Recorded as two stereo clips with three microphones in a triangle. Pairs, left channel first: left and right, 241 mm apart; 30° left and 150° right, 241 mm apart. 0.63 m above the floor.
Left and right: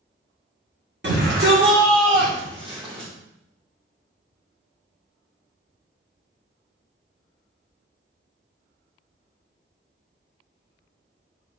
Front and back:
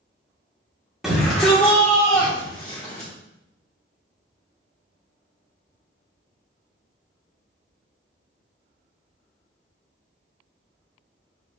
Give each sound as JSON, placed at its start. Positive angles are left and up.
{"t": 1.0, "sound": "a shout", "azimuth_deg": -60, "distance_m": 2.0}